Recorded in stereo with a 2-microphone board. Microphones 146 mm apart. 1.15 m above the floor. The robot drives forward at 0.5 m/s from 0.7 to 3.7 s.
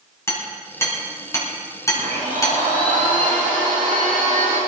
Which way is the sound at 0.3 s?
20° left (ahead or behind).